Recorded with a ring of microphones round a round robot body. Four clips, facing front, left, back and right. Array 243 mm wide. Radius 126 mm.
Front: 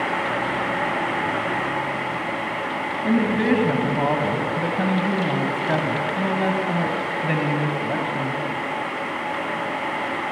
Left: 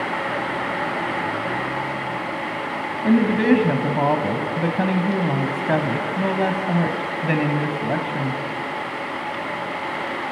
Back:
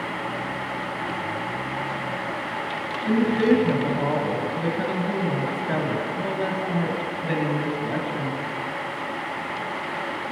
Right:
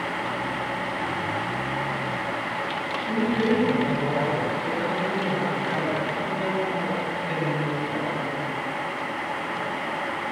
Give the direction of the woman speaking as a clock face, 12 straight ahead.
10 o'clock.